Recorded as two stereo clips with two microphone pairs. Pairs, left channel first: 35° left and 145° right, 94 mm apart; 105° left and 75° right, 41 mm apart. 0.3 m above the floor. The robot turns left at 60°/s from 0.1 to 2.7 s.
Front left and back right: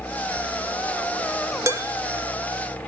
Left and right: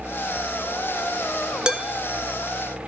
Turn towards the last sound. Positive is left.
turn(degrees=-175)